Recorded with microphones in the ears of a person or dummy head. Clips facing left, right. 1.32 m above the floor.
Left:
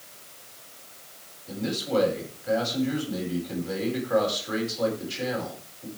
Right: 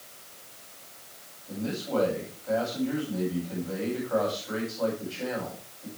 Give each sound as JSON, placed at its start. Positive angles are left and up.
{"t": 1.5, "sound": "a man speaking", "side_deg": 80, "distance_m": 9.5}